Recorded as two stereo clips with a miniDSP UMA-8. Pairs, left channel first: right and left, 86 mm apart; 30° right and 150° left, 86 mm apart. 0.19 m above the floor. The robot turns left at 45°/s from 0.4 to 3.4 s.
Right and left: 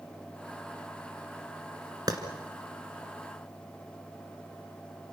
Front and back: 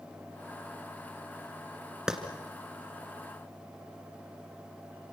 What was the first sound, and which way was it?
A clap, 70° left.